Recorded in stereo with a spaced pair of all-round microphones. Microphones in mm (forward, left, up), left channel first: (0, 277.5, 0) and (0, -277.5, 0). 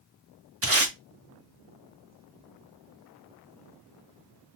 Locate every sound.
0.6 s tape being pulled: 25° right (ahead or behind), 1.0 m